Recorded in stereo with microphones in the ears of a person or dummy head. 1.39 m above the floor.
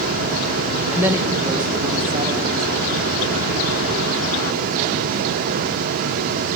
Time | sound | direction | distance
0.9 | a woman speaking | 5° right (ahead or behind) | 1.2 m